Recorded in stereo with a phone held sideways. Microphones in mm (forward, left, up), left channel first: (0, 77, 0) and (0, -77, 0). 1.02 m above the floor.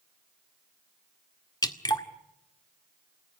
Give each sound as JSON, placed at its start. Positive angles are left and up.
{"t": 1.6, "sound": "dripping", "side_deg": 25, "distance_m": 1.8}